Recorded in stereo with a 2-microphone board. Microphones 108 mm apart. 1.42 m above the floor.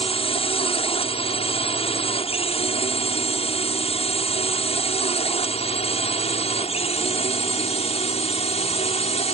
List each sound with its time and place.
0.0 s a drone: 65° left (ahead or behind); by 9.3 s 75° left (ahead or behind)